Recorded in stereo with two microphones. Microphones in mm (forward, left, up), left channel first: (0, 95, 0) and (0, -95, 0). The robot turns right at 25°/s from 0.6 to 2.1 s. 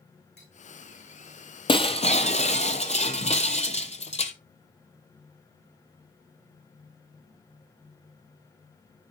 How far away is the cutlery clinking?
About 5 m.